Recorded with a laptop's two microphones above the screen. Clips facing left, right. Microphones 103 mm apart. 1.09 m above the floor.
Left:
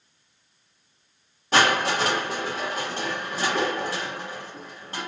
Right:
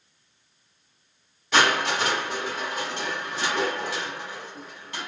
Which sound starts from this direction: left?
Crushing, at 1.5 s.